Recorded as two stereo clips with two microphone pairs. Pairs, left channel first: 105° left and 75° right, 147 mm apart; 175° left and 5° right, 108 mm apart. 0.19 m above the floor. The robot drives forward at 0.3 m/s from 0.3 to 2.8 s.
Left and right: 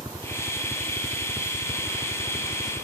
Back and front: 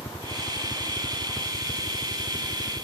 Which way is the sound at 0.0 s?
140° right.